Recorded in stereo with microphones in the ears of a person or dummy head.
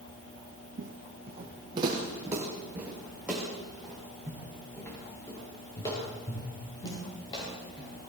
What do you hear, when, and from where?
0.8 s footsteps: 45° right (ahead or behind), 4.5 m; by 7.9 s 25° left (ahead or behind), 11.5 m